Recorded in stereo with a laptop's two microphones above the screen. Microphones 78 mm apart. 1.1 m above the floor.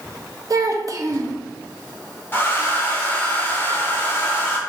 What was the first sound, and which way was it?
A child speaking, 45° right (ahead or behind).